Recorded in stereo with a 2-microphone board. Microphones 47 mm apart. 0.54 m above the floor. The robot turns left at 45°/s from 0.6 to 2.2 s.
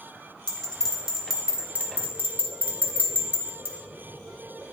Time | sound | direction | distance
0.5 | a bell | 20° left (ahead or behind) | 1.8 m